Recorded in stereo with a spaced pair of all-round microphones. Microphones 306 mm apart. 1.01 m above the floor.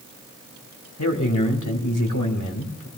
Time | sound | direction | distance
1.0 | a man speaking | 80° left | 3 m